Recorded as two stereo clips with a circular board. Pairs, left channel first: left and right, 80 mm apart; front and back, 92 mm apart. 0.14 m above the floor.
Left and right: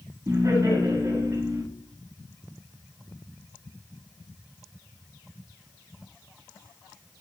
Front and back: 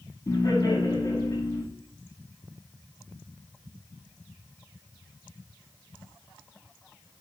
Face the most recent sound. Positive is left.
turn(degrees=-50)